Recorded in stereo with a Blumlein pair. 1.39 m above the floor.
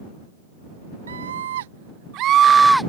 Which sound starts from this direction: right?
A scream, at 1.1 s.